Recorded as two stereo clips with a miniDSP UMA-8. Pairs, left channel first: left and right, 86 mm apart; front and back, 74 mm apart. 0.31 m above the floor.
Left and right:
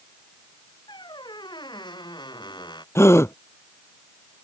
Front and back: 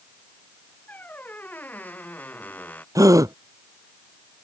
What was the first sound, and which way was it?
A squeak, 65° left.